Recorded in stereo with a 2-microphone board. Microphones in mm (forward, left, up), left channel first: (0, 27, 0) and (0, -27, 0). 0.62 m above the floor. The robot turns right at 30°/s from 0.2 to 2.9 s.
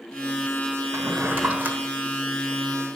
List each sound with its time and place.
0.9 s a drawer: 55° right (ahead or behind), 1.3 m; by 1.8 s 30° right (ahead or behind), 1.3 m